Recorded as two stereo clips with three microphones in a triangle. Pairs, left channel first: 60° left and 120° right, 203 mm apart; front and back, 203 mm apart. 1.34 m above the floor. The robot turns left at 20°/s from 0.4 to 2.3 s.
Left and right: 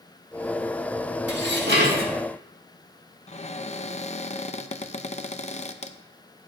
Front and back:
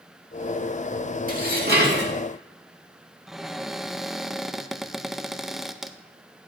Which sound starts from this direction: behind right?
Dishes clattering, at 1.3 s.